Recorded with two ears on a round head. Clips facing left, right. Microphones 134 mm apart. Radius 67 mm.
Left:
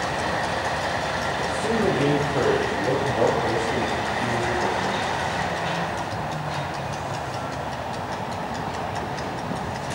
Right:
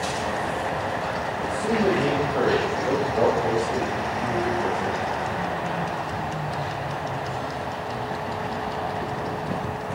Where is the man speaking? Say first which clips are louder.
Right 1 dB; 10° left (ahead or behind), 2.5 m; by 5.0 s 15° right (ahead or behind), 4 m.